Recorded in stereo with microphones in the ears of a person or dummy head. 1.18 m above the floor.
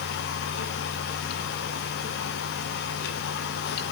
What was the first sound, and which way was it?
Only background noise.